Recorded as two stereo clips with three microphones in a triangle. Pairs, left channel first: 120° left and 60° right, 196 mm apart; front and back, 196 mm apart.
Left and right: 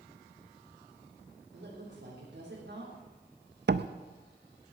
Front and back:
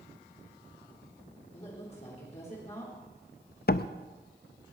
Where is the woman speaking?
50° right, 4 m.